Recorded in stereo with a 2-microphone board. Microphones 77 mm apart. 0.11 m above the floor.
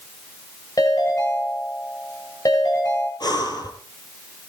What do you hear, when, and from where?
0.8 s a ringtone: 60° left (ahead or behind), 9.5 m
3.2 s breathing: 60° left (ahead or behind), 2.5 m